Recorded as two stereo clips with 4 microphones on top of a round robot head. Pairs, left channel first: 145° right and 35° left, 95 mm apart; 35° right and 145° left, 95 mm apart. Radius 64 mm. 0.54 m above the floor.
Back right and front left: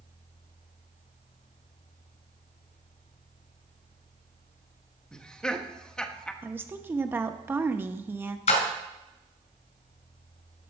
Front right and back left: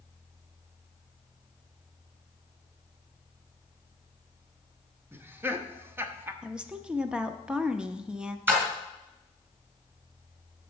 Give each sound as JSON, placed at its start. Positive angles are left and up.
{"t": 5.1, "sound": "laughter", "azimuth_deg": 140, "distance_m": 1.0}
{"t": 6.4, "sound": "a woman speaking", "azimuth_deg": 75, "distance_m": 0.8}
{"t": 8.5, "sound": "a splash", "azimuth_deg": -145, "distance_m": 2.0}